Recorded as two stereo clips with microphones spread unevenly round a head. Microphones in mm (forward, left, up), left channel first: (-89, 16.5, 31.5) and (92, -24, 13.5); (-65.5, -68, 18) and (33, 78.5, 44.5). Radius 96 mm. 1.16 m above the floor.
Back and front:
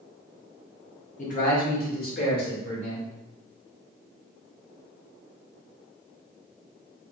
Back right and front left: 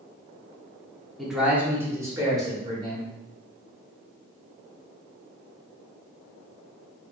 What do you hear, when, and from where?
1.2 s a man speaking: 160° left, 0.7 m; by 3.1 s 125° left, 1.7 m